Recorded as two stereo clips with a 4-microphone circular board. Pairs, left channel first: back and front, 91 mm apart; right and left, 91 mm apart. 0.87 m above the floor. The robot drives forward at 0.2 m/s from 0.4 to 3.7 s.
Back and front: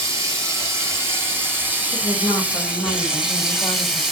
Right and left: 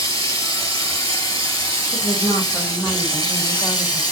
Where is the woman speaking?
115° right, 1.0 m; by 4.0 s 130° right, 1.2 m.